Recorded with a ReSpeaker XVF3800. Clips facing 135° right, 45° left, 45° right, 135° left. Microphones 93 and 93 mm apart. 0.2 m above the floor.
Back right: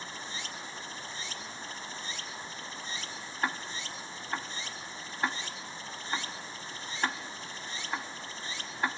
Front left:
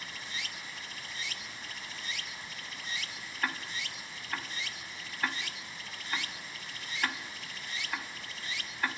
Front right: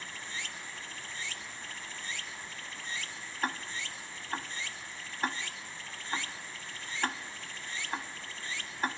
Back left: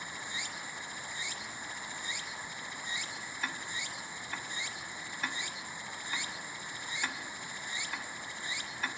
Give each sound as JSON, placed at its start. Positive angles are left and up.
{"t": 0.0, "sound": "running water", "azimuth_deg": -165, "distance_m": 1.0}
{"t": 3.4, "sound": "ticking", "azimuth_deg": -75, "distance_m": 1.1}